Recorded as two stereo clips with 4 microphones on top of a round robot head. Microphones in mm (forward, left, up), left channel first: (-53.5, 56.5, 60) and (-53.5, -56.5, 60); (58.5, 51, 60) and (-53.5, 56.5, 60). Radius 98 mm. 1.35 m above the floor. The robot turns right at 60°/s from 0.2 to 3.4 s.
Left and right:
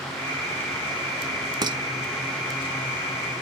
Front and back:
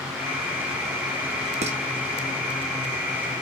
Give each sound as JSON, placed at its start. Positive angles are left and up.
{"t": 1.6, "sound": "dishes clattering", "azimuth_deg": -145, "distance_m": 1.8}